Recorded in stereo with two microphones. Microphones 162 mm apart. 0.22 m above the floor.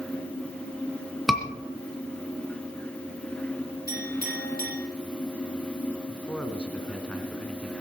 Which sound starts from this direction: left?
A clink, at 3.9 s.